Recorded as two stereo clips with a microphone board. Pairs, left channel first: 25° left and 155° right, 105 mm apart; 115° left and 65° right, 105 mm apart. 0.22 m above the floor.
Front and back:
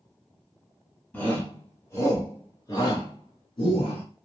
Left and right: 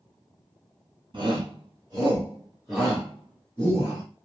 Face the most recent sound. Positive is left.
turn(degrees=50)